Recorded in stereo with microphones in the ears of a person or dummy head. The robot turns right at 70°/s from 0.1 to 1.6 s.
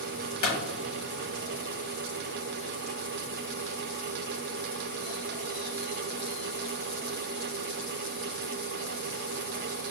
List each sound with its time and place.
0.4 s a clap: 45° left (ahead or behind), 0.8 m; by 0.6 s 35° left (ahead or behind), 0.8 m